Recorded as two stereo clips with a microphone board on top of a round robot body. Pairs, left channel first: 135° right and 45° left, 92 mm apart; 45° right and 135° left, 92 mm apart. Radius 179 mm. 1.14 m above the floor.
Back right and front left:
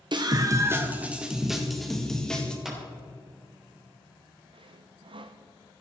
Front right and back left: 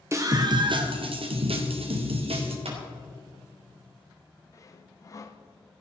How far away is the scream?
About 1.2 m.